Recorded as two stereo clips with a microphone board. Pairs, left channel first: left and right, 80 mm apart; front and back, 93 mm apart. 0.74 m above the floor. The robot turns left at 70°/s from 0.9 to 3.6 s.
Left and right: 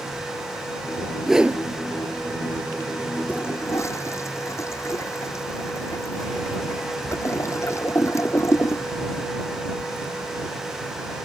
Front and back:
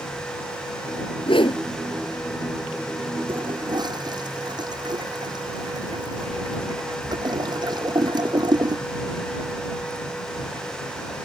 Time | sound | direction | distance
1.3 | a whoosh | straight ahead | ?
3.3 | a toilet flushing | 165° left | ?